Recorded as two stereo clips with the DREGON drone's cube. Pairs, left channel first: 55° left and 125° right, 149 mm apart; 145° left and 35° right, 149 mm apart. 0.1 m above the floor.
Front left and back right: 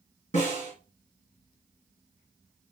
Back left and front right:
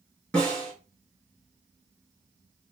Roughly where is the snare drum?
Ahead left.